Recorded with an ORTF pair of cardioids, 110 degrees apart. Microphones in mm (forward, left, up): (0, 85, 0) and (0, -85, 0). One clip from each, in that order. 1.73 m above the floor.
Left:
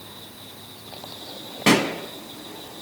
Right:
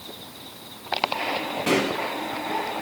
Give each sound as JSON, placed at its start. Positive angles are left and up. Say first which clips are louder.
{"t": 1.7, "sound": "a pop", "louder": "left 4 dB", "azimuth_deg": 55, "distance_m": 1.1}